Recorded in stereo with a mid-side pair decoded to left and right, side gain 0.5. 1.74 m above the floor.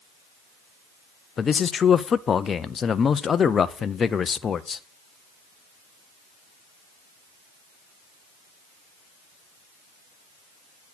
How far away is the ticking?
I don't hear ticking.